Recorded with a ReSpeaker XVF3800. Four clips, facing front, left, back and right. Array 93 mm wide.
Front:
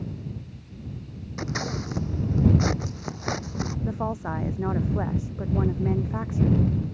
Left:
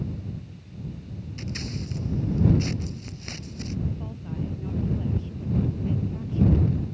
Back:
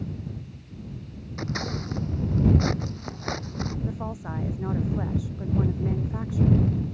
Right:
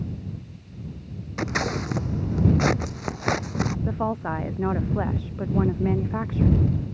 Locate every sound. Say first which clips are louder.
1.4 s scissors: right 10 dB, front 1 dB; 85° right
3.9 s a woman speaking: right 9 dB, front 5 dB; 65° right